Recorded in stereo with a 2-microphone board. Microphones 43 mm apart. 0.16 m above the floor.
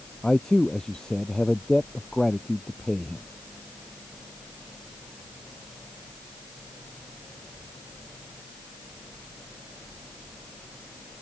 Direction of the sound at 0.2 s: 15° left (ahead or behind).